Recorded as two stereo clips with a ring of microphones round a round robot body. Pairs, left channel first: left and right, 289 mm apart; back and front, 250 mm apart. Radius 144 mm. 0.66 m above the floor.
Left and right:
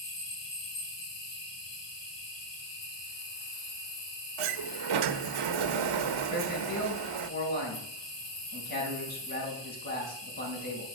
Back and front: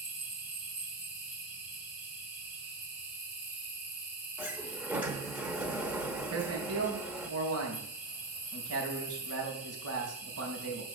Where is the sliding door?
85° right, 0.7 m.